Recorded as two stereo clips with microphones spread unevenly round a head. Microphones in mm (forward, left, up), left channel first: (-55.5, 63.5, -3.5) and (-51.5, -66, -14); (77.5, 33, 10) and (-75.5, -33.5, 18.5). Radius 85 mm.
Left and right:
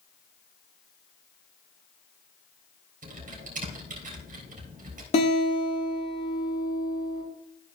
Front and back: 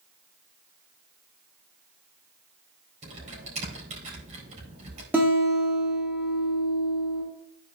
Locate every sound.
3.0 s typing on a keyboard: 105° right, 3.5 m
5.1 s a guitar: 125° left, 4 m